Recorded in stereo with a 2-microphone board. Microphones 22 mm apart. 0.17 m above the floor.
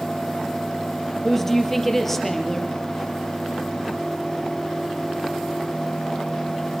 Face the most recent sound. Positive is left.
turn(degrees=15)  # may be behind; listen again after turning